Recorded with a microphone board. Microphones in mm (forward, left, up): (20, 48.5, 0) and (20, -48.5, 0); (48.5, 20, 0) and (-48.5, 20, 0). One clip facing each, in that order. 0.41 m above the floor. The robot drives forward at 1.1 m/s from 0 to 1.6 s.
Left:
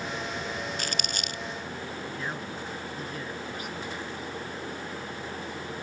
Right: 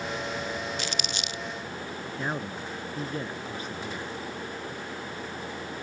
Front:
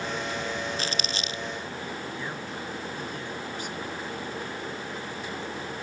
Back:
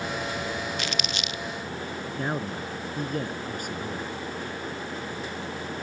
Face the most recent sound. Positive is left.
turn(degrees=-145)